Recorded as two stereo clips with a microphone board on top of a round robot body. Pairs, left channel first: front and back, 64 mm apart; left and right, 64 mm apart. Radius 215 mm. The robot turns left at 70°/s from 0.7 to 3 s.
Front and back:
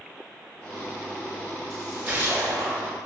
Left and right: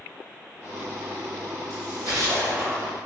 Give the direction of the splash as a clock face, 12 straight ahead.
3 o'clock.